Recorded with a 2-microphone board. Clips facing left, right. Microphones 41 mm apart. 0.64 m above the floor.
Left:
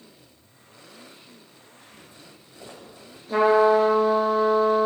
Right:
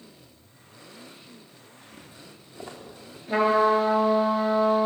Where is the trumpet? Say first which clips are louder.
Left 3 dB; 30° right (ahead or behind), 6 m.